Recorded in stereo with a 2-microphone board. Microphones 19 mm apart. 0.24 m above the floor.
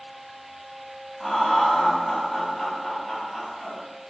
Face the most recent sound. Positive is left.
turn(degrees=15)  # may be behind; listen again after turning